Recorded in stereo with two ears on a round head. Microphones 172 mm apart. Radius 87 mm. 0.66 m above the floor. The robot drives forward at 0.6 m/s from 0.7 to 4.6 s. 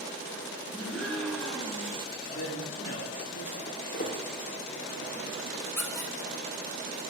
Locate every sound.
0.7 s a gasp: 5° left (ahead or behind), 5 m
2.3 s a man speaking: 60° left (ahead or behind), 2.0 m; by 3.6 s 50° left (ahead or behind), 2 m
3.7 s footsteps: 45° left (ahead or behind), 6 m
5.8 s a squeak: 10° left (ahead or behind), 1.5 m